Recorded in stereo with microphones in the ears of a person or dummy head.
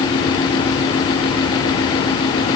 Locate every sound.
Only background noise.